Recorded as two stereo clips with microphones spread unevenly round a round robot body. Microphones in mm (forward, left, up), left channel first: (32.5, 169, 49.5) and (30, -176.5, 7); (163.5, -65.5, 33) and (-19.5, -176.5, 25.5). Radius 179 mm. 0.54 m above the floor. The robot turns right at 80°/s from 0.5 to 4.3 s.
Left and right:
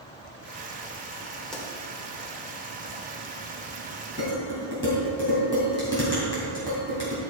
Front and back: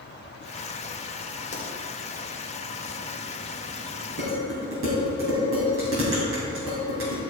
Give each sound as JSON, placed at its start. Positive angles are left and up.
{"t": 1.5, "sound": "a pop", "azimuth_deg": -5, "distance_m": 2.0}
{"t": 4.2, "sound": "dishes clattering", "azimuth_deg": 160, "distance_m": 3.0}